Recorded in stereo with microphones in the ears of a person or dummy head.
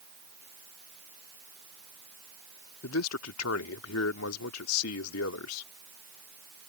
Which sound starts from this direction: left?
A man speaking, at 2.8 s.